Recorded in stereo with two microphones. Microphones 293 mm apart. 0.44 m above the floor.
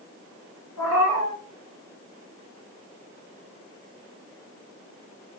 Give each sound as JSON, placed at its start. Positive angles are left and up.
{"t": 0.8, "sound": "a cat meowing", "side_deg": 80, "distance_m": 3.0}